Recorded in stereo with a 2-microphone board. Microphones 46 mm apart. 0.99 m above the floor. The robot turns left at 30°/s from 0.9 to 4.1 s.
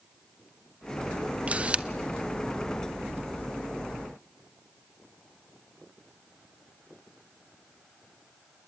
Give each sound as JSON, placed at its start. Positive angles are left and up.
{"t": 1.5, "sound": "a camera shutter", "side_deg": -25, "distance_m": 0.6}